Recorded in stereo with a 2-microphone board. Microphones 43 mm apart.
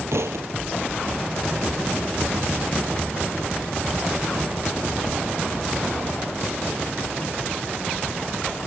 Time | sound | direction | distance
0.1 | a thud | 75° right (ahead or behind) | ?